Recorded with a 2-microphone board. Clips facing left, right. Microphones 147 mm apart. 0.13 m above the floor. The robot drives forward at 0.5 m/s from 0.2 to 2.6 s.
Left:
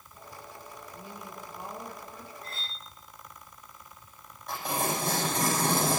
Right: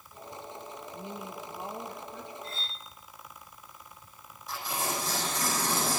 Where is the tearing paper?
60° left (ahead or behind), 7 m.